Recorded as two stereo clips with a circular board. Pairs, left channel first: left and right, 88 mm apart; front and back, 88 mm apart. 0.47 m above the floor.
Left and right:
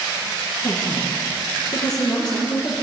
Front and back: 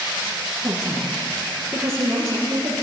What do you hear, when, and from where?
0.6 s a woman speaking: 130° left, 9 m; by 2.8 s 125° left, 10 m